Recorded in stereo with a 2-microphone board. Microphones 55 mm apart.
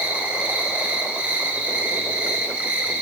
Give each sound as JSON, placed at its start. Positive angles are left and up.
{"t": 0.0, "sound": "an insect", "side_deg": -30, "distance_m": 9.0}